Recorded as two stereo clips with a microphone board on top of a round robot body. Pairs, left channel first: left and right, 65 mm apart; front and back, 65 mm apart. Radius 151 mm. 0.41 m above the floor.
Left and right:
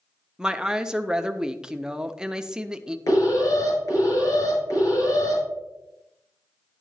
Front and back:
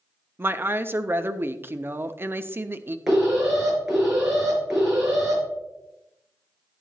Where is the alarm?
95° left, 5.5 m.